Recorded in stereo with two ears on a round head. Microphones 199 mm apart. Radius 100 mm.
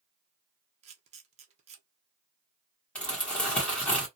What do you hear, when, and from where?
0.8 s a camera shutter: 30° right (ahead or behind), 0.7 m
3.0 s crumpling: 5° left (ahead or behind), 1.0 m